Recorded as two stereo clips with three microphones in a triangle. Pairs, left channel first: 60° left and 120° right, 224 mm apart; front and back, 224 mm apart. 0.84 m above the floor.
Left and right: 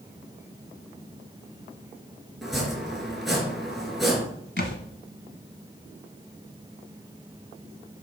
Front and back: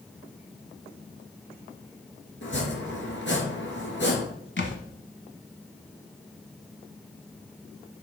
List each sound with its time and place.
2.4 s chopping: 30° right, 3 m
4.6 s a thud: 25° left, 1.4 m